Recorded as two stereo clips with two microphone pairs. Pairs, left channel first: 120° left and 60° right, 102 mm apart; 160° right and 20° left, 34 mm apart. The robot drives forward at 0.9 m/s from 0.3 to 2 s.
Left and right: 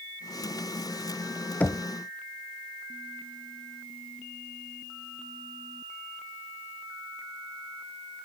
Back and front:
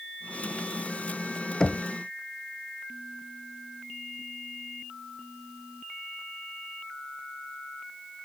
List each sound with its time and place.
1.6 s knocking: straight behind, 0.7 m